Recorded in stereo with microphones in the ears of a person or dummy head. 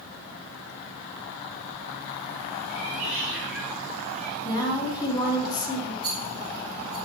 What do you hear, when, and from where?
2.7 s a cat meowing: centre (ahead or behind), 4.5 m; by 4.3 s 5° left (ahead or behind), 3.5 m
4.4 s a woman speaking: 15° left (ahead or behind), 2.5 m
6.0 s a rattle: 20° right (ahead or behind), 3.5 m